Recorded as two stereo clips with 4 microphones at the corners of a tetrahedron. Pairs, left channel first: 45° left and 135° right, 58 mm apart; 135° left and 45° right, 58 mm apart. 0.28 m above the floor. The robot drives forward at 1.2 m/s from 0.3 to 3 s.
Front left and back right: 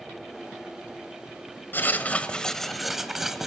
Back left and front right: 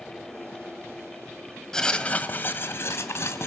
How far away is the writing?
About 1.5 m.